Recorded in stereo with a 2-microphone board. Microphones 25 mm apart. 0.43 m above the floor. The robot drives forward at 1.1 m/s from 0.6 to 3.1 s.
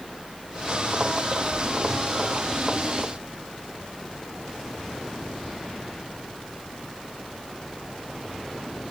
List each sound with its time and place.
Only background noise.